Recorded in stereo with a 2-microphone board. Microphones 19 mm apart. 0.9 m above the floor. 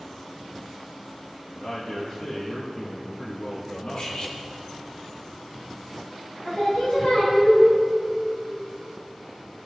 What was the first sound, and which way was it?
A man speaking, 60° left (ahead or behind).